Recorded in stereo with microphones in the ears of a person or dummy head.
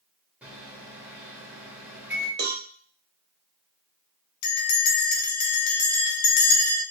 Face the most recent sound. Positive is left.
turn(degrees=45)  # may be behind; listen again after turning